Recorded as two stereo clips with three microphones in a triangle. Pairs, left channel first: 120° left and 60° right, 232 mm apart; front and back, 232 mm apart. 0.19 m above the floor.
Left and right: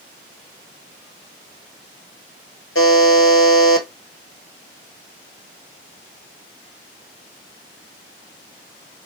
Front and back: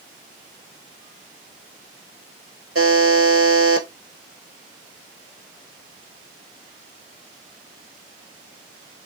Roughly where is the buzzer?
Behind left.